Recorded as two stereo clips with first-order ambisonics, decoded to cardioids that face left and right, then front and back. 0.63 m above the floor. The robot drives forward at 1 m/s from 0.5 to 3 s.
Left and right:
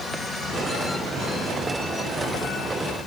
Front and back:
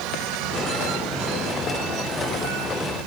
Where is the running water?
170° right, 1.9 m; by 3.1 s 175° right, 4.5 m.